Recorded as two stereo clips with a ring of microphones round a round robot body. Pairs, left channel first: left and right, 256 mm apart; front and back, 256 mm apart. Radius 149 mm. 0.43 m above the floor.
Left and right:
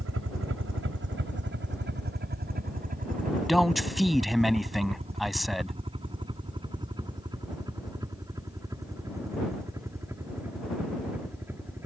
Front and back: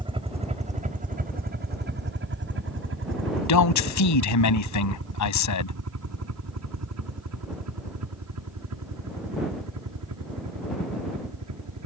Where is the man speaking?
Straight ahead.